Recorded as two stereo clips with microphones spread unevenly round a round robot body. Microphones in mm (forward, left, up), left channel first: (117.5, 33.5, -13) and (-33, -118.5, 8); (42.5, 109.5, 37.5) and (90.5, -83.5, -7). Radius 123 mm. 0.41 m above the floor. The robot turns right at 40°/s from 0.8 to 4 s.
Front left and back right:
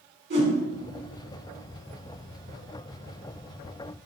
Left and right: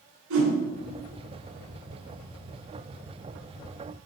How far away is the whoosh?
About 2.5 m.